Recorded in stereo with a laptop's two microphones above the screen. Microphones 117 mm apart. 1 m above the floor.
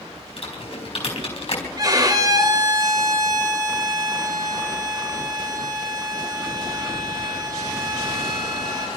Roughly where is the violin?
Right.